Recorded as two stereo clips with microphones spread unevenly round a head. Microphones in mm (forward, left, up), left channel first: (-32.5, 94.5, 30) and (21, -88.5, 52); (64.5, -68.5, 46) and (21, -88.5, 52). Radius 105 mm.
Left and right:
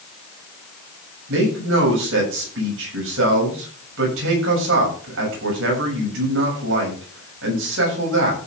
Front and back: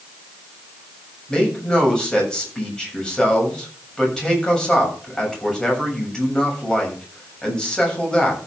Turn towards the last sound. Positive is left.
turn(degrees=-50)